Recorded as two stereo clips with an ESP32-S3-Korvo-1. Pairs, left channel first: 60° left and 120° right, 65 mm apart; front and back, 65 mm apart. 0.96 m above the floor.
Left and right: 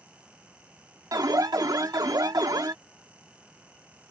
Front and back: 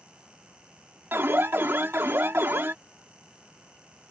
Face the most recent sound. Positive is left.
turn(degrees=-125)